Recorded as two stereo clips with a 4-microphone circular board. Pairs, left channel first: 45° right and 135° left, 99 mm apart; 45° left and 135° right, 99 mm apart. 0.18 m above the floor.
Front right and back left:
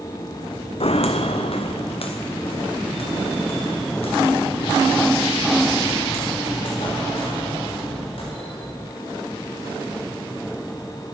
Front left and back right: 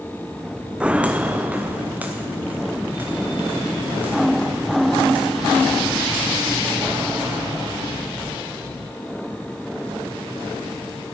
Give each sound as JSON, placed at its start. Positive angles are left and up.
{"t": 0.8, "sound": "footsteps", "azimuth_deg": -55, "distance_m": 0.6}